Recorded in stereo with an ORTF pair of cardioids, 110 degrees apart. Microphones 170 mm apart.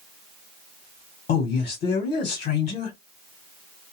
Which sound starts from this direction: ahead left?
A man speaking, at 1.3 s.